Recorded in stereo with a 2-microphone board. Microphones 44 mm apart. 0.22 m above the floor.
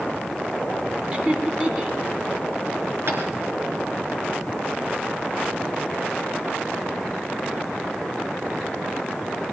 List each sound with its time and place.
1.1 s laughter: 20° right (ahead or behind), 1.8 m
3.1 s tapping: 55° right (ahead or behind), 3.5 m